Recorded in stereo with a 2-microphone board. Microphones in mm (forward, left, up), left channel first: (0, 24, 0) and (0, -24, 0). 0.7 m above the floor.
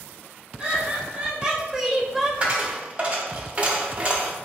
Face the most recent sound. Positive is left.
turn(degrees=-25)  # may be behind; listen again after turning